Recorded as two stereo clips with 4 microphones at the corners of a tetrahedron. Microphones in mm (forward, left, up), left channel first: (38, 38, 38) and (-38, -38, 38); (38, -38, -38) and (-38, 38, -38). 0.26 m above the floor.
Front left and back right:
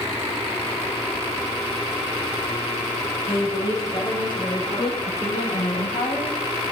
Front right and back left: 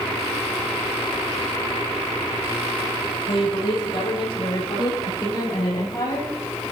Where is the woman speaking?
Straight ahead, 6 m; by 6.7 s 15° left, 7 m.